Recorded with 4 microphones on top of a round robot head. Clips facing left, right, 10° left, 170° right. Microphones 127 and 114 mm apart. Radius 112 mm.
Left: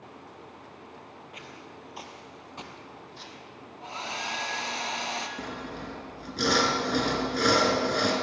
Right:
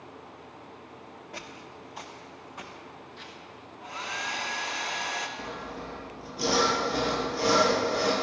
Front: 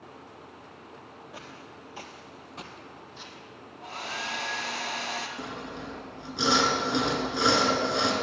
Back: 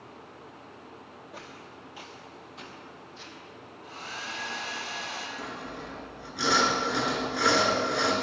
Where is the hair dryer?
30° left, 2.0 m.